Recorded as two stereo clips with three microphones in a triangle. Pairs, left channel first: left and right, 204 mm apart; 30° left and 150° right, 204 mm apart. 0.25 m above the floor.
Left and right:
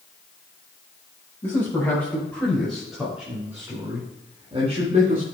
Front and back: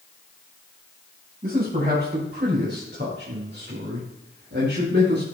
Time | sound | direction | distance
1.4 | a man speaking | 170° left | 5 m